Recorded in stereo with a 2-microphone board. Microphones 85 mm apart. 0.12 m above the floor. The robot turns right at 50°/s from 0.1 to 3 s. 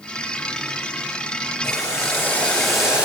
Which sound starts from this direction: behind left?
Boiling, at 1.6 s.